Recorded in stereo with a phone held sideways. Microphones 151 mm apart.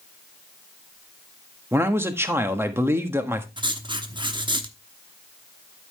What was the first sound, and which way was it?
A man speaking, 15° right (ahead or behind).